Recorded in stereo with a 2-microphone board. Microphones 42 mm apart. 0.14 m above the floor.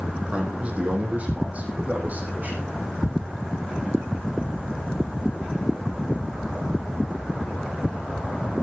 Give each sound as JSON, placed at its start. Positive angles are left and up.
{"t": 0.3, "sound": "a man speaking", "side_deg": -30, "distance_m": 6.5}